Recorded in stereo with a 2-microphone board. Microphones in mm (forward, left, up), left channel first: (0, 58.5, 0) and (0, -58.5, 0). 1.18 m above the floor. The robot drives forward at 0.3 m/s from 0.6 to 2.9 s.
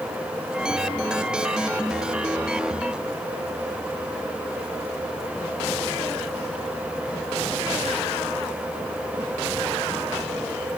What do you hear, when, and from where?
Only background noise.